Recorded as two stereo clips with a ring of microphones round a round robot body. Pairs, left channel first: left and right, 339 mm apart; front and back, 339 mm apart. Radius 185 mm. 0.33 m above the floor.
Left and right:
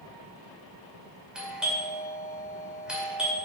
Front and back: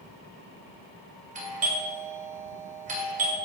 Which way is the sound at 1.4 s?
175° right.